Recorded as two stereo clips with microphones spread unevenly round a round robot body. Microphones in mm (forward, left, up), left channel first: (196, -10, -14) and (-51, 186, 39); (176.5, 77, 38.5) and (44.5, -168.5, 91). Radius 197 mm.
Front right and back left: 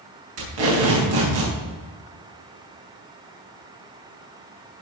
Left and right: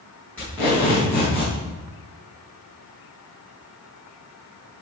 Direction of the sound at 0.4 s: 150° left.